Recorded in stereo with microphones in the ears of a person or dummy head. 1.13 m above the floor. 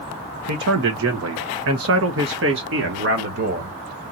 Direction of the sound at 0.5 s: 60° right (ahead or behind).